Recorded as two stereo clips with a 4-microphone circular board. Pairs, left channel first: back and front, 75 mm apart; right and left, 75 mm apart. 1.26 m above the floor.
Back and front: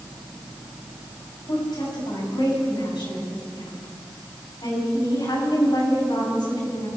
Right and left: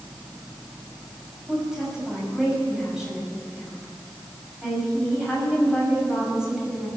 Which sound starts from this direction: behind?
A woman speaking, at 1.5 s.